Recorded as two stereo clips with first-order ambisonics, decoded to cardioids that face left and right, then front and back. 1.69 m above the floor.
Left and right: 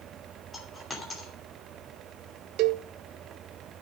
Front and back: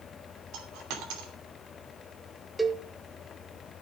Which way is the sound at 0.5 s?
165° left.